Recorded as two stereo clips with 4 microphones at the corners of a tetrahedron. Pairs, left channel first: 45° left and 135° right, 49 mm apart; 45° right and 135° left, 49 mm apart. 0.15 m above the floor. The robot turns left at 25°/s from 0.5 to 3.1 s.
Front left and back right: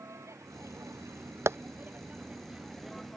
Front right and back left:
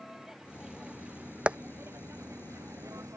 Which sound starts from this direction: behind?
Tapping, at 1.5 s.